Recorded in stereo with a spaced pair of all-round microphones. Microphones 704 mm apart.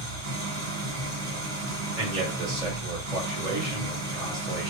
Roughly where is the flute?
I don't hear a flute.